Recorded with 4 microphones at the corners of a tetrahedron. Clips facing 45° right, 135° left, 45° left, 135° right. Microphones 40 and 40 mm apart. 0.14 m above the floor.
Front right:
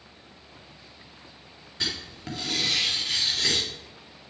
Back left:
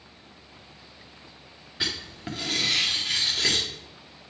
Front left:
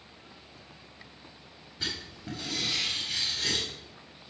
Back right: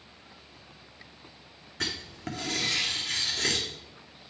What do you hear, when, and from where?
1.8 s writing: 145° right, 1.8 m